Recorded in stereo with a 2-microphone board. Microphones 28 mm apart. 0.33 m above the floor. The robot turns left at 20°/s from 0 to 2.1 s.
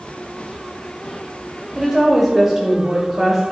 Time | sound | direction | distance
1.8 | a woman speaking | 15° right (ahead or behind) | 1.4 m